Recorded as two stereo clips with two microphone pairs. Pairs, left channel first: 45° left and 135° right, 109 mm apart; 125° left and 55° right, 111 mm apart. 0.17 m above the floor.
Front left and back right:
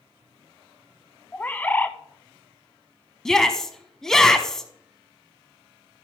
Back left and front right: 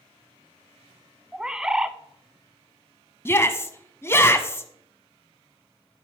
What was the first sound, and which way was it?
A bird, 15° left.